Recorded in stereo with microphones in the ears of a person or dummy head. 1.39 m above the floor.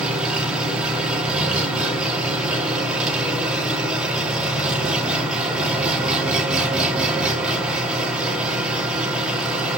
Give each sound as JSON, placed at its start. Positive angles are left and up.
{"t": 0.0, "sound": "an engine running", "side_deg": -5, "distance_m": 2.0}